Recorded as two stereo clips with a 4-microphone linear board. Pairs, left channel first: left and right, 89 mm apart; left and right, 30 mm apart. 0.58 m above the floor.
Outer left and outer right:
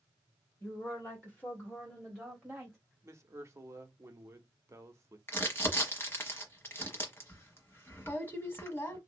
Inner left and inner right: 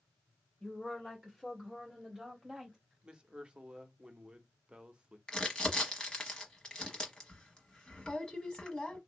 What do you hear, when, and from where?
0.6 s a woman speaking: 25° left (ahead or behind), 1.9 m; by 2.8 s 15° right (ahead or behind), 1.3 m
3.0 s a man speaking: 35° right (ahead or behind), 0.7 m
5.3 s crumpling: 25° left (ahead or behind), 1.0 m